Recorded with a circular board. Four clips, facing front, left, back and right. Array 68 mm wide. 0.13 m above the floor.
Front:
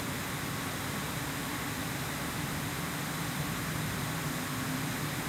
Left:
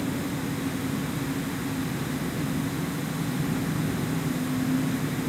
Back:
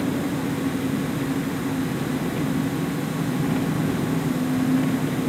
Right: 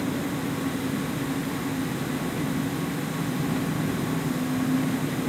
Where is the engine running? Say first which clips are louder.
Right 2 dB, back 13 dB; 170° right.